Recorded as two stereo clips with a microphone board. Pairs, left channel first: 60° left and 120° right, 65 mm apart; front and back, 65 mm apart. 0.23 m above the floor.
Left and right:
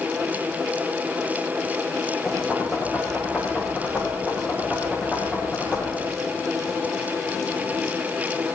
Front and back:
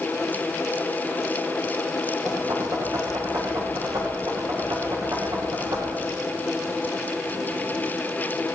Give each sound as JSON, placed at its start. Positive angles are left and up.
{"t": 2.2, "sound": "knocking", "azimuth_deg": 160, "distance_m": 9.5}